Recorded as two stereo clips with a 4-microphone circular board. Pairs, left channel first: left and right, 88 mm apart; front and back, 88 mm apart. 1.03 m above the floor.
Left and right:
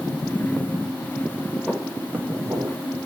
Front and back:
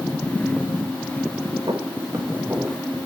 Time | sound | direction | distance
1.7 | footsteps | 175° left | 1.4 m